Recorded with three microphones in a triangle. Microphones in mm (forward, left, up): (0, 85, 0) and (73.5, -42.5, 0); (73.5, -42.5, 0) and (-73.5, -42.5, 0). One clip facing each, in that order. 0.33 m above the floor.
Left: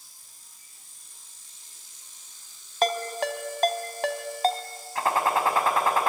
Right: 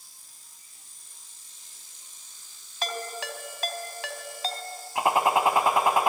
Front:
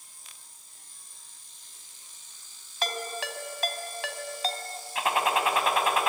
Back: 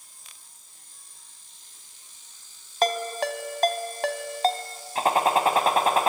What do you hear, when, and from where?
2.8 s a ringtone: 150° left, 1.5 m
5.0 s a gunshot: 130° right, 1.8 m